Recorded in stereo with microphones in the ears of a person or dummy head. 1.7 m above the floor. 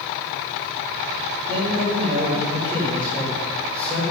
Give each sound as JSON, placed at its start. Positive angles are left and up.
{"t": 1.5, "sound": "a man speaking", "side_deg": 15, "distance_m": 5.5}